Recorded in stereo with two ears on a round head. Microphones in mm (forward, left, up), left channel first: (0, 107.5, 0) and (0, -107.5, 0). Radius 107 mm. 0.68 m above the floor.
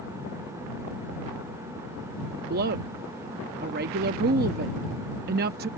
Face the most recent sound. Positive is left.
turn(degrees=-40)  # may be behind; listen again after turning